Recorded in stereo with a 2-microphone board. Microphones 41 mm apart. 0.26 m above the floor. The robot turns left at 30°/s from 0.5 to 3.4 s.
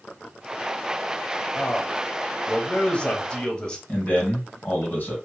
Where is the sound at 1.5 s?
95° left, 1.0 m; by 3.8 s 40° left, 1.0 m.